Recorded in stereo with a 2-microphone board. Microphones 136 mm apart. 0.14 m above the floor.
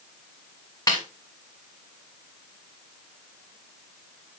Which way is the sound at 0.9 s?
25° left (ahead or behind).